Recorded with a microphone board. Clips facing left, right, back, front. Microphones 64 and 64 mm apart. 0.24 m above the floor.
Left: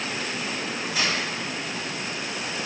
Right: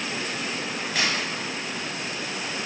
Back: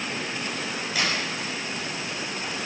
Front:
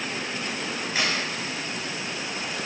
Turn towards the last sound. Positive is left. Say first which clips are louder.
# even, even
turn(degrees=-60)